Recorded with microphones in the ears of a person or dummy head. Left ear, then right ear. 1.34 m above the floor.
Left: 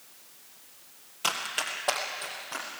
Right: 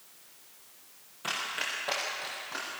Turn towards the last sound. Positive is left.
turn(degrees=20)  # may be behind; listen again after turning